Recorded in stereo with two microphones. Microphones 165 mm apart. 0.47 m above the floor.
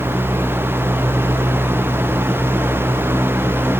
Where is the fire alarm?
No fire alarm in this recording.